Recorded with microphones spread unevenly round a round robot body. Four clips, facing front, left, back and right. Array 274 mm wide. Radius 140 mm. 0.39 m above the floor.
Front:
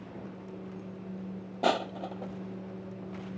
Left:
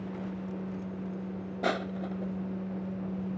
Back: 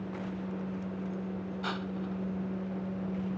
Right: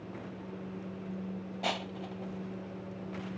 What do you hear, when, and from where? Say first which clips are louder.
1.6 s crushing: left 6 dB, front 10 dB; 25° left